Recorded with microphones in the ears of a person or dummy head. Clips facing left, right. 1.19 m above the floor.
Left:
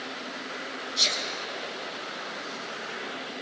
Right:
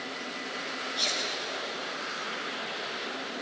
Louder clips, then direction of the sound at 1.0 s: Left 1 dB; 25° left (ahead or behind).